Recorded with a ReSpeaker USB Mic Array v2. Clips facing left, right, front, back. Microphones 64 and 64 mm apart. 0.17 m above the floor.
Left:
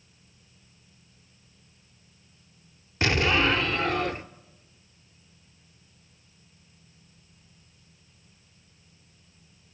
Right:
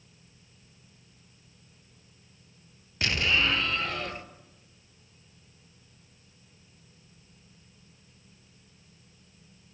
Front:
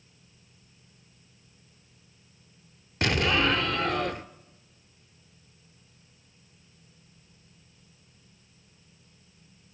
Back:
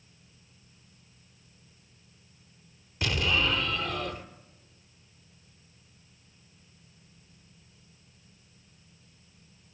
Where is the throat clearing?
I don't hear throat clearing.